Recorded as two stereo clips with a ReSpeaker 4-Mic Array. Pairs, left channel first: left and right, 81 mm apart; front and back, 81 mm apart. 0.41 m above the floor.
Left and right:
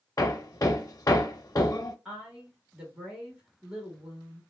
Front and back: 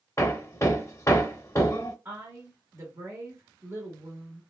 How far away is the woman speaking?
About 1.1 m.